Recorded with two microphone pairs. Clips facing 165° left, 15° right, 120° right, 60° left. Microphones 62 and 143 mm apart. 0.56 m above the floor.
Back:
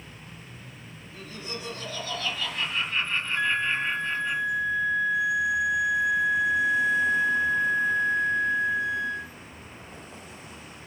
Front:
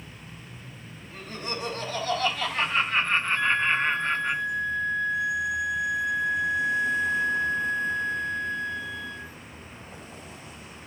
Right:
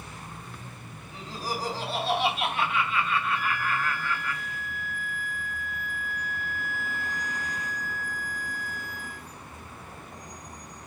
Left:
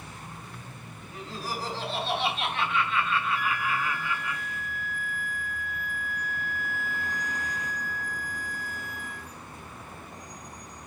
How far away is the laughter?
About 4.5 m.